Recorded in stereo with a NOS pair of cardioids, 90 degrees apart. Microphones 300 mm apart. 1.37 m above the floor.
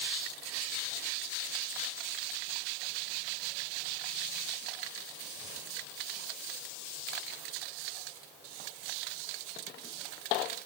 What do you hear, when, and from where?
Only background noise.